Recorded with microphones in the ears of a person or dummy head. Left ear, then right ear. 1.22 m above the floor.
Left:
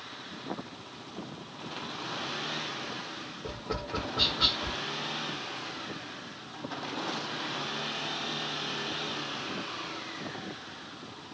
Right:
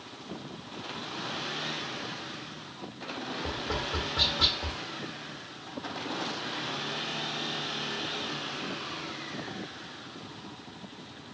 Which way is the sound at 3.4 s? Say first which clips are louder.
Right 3 dB; centre (ahead or behind).